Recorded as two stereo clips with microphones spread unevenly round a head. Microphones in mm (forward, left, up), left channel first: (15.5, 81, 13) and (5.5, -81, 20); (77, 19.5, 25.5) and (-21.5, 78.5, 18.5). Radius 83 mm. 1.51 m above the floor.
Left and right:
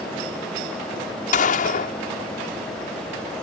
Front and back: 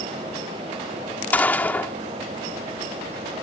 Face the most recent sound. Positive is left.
turn(degrees=45)